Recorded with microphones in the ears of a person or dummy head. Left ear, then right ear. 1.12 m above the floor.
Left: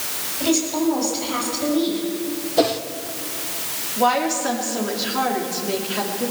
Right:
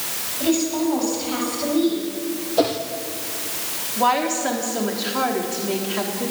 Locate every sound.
0.4 s a woman speaking: centre (ahead or behind), 8 m
2.6 s a whoosh: 10° left (ahead or behind), 1.0 m
4.0 s a woman speaking: 10° right (ahead or behind), 3 m